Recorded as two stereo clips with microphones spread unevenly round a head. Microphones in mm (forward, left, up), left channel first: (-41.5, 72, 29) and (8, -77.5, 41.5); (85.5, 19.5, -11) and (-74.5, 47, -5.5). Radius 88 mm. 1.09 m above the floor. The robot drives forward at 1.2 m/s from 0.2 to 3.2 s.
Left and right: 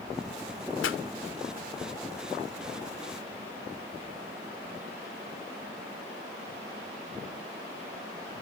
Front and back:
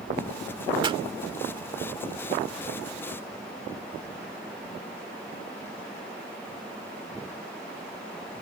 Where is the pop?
110° left; by 1.0 s 115° left.